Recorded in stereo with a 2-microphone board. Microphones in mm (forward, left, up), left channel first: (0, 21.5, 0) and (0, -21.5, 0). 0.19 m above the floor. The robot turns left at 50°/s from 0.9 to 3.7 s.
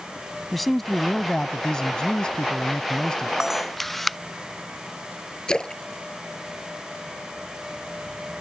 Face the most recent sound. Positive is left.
turn(degrees=20)  # may be behind; listen again after turning